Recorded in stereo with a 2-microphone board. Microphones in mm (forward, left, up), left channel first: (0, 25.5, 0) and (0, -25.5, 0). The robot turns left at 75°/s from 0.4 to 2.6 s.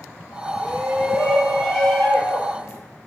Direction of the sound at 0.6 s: 110° right.